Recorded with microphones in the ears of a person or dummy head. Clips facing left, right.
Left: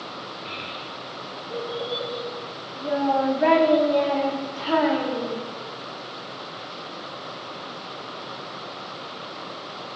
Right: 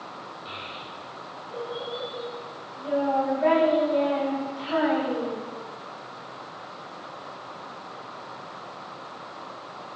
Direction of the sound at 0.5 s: 35° left (ahead or behind).